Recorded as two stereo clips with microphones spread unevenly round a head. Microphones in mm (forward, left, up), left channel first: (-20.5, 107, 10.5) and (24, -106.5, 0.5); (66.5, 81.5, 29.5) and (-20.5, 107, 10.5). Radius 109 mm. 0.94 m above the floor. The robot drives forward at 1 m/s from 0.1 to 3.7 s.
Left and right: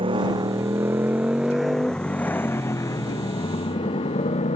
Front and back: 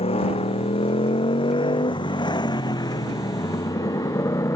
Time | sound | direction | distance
0.0 | a motorcycle | 10° right | ?